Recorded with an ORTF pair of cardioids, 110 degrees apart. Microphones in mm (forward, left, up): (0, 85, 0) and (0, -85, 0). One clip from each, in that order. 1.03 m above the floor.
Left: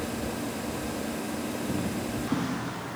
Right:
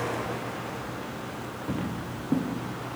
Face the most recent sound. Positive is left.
turn(degrees=-20)